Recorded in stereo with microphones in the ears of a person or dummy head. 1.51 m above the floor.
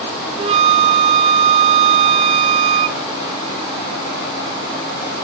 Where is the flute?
30° right (ahead or behind), 0.8 m.